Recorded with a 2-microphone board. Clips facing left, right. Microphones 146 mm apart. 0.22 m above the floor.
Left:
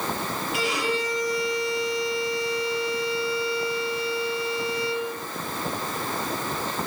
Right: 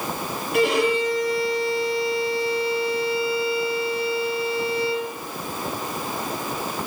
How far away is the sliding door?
No sliding door in this recording.